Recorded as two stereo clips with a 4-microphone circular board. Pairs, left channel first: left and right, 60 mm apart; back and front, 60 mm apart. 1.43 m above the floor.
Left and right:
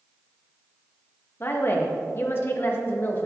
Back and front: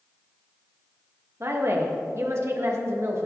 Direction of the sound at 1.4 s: 40° left.